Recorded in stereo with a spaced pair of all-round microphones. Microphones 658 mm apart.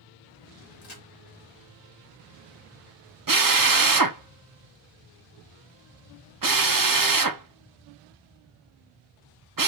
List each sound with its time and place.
0.8 s a crack: 70° left (ahead or behind), 2 m
3.3 s a drill: 35° right (ahead or behind), 0.5 m